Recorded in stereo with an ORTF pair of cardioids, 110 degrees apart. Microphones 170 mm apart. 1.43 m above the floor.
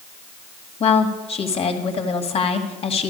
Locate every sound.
0.8 s a woman speaking: 40° left, 2 m